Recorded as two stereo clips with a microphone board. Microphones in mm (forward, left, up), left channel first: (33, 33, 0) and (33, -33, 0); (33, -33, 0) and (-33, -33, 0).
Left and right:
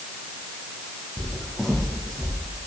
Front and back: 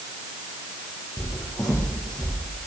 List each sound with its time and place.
1.2 s footsteps: 15° left, 1.4 m; by 2.3 s straight ahead, 1.9 m